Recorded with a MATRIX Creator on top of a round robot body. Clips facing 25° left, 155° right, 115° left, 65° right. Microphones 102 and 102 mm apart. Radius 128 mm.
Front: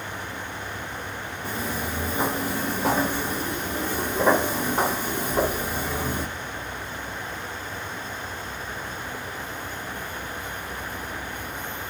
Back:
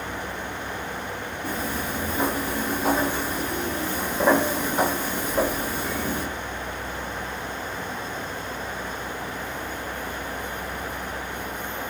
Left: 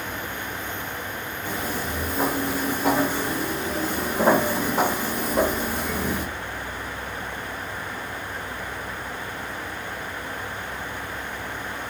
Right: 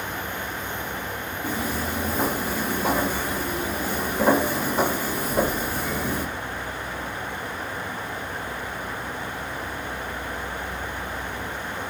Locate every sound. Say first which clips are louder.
1.4 s footsteps: back 1 dB, right 2 dB; 75° right, 1.2 m; by 6.2 s 75° left, 2.5 m